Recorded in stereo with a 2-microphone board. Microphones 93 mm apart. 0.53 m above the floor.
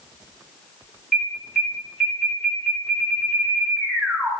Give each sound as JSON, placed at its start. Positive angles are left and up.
{"t": 1.1, "sound": "an alarm", "side_deg": -5, "distance_m": 2.0}